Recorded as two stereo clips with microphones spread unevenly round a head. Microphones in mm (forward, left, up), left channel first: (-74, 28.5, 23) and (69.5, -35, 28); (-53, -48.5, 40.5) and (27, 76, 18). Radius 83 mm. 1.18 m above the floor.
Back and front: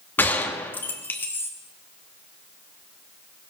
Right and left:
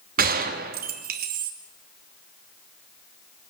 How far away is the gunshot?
About 2.5 m.